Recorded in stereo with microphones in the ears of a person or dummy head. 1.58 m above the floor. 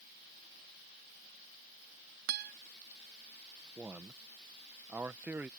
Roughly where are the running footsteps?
No running footsteps in this recording.